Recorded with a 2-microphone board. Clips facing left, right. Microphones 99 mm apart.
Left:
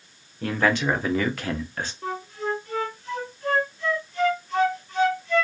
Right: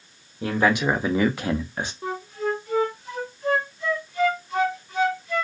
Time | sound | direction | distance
0.4 | a man speaking | 15° right (ahead or behind) | 1.0 m
2.0 | a flute | 10° right (ahead or behind) | 1.1 m